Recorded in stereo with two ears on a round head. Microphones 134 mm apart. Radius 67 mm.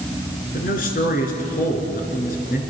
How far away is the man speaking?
About 5 m.